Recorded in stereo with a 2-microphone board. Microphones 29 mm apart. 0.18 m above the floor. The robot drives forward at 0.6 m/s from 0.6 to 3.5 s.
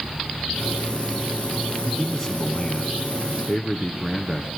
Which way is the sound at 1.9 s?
10° left (ahead or behind).